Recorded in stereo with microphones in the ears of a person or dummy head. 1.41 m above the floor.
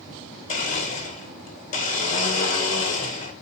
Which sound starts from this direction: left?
A blender, at 0.5 s.